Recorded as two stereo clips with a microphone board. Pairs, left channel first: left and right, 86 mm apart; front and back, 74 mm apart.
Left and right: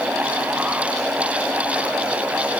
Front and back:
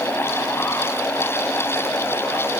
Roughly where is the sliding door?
I don't hear a sliding door.